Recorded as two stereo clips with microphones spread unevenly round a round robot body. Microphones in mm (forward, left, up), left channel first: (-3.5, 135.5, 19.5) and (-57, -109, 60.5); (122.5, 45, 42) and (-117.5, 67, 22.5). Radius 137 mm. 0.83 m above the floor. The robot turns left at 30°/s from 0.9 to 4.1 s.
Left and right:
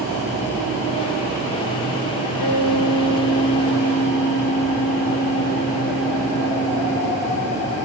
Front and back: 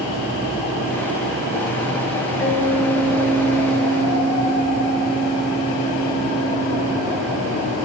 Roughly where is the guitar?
Ahead left.